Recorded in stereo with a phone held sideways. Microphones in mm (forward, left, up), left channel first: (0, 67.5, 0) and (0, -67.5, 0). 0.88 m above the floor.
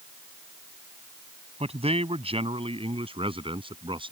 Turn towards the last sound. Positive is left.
turn(degrees=-40)  # may be behind; listen again after turning